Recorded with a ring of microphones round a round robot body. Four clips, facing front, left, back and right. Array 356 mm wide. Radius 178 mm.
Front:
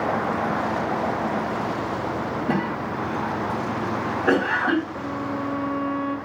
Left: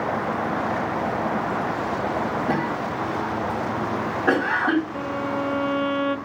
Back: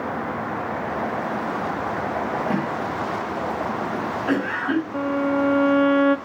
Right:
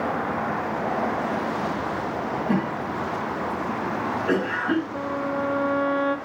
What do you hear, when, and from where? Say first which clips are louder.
2.5 s a cough: left 1 dB, even; 50° left, 3.5 m
4.9 s a violin: even, back 6 dB; 165° right, 0.7 m